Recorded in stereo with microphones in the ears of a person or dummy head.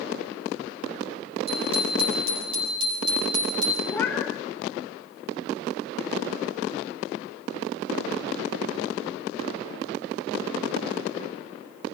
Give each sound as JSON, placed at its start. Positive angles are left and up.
{"t": 1.5, "sound": "a bicycle bell", "side_deg": -35, "distance_m": 6.5}
{"t": 3.9, "sound": "a cat meowing", "side_deg": 15, "distance_m": 1.8}